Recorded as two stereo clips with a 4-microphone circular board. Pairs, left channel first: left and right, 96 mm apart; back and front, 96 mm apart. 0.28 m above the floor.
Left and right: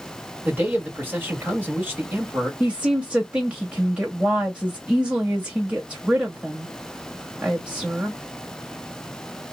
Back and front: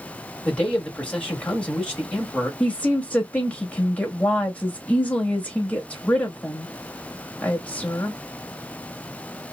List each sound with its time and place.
0.5 s a man speaking: 120° right, 1.0 m
2.6 s a woman speaking: 140° right, 1.0 m